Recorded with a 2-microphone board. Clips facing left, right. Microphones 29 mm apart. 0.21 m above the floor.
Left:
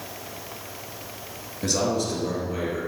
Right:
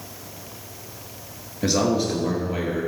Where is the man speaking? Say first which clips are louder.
Right 3 dB; 20° right (ahead or behind), 3 m; by 2.9 s 25° right (ahead or behind), 4 m.